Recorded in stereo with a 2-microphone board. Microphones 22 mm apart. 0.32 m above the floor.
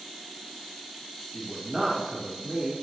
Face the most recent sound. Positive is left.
turn(degrees=-5)  # may be behind; listen again after turning